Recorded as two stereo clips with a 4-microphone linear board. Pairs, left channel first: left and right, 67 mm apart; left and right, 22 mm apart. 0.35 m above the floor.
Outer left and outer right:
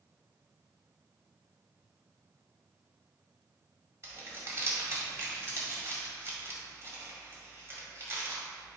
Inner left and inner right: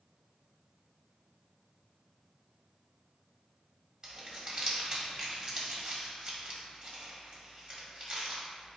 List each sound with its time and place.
4.0 s crumpling: 40° right (ahead or behind), 1.9 m